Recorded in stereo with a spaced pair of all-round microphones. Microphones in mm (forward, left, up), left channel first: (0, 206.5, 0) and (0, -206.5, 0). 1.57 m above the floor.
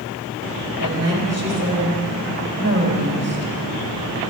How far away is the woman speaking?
About 3.5 m.